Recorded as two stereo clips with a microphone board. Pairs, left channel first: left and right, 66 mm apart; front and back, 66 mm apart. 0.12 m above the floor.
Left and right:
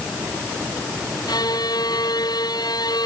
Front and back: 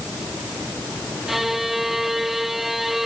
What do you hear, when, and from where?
1.3 s a violin: 95° left